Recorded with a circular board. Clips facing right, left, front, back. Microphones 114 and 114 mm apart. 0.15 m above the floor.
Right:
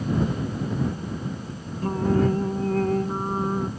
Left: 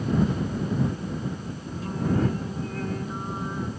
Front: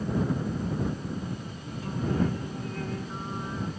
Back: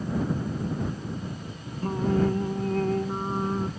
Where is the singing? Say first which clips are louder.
Right 4 dB, back 4 dB; 135° right.